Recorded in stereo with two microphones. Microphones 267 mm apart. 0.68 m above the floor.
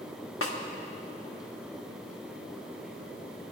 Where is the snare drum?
55° left (ahead or behind), 1.2 m.